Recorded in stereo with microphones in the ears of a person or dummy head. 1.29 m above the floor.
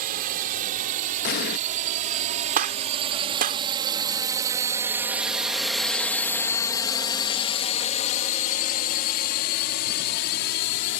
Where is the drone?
55° right (ahead or behind); by 11.0 s 60° left (ahead or behind).